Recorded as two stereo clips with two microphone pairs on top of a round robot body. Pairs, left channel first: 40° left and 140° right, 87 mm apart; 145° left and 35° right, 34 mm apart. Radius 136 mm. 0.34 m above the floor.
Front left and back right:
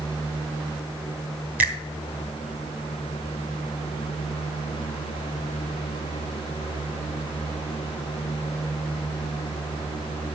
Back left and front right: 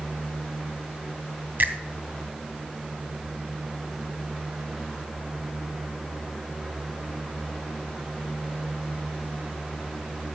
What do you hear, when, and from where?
1.6 s a finger snap: 65° right, 3 m